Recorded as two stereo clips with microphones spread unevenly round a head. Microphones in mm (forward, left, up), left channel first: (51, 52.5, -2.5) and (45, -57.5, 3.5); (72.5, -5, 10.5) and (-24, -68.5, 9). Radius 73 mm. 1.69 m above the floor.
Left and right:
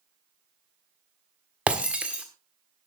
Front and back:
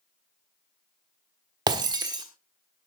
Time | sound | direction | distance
1.7 | breaking glass | 160° right | 1.5 m